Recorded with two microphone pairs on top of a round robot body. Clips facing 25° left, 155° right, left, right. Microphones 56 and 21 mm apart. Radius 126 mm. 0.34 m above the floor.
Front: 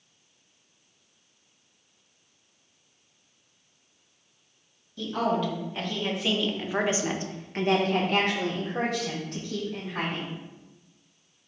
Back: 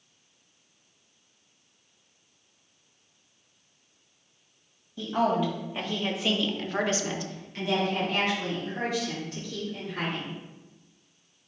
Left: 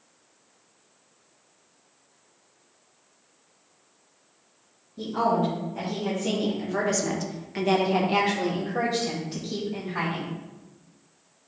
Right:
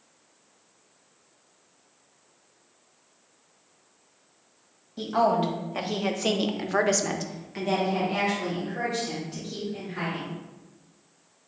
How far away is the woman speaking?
About 2.5 m.